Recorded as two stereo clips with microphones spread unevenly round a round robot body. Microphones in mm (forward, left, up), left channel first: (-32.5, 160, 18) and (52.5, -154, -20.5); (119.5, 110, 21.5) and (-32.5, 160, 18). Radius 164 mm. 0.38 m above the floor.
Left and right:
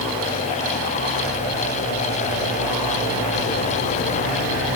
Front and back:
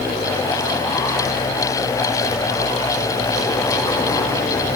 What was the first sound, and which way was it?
Only background noise.